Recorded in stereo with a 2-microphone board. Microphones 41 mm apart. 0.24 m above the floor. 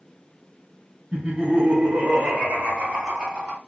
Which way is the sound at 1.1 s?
30° right (ahead or behind).